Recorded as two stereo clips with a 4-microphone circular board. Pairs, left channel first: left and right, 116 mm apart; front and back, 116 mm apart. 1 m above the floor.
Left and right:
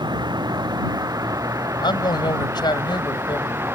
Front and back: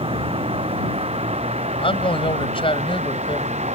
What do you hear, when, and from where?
0.0 s a vehicle: 145° right; by 3.8 s 160° right
1.8 s a man speaking: 40° left